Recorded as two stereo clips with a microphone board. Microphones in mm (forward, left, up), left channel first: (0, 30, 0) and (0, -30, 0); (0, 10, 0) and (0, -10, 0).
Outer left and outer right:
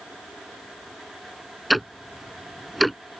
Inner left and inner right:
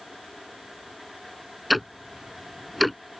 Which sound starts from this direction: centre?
Ticking, at 1.7 s.